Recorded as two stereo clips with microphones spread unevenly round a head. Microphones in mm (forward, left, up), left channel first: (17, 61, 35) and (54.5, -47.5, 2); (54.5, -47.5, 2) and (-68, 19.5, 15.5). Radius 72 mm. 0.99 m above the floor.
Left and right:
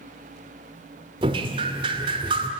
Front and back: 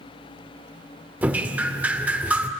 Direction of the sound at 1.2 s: 130° right.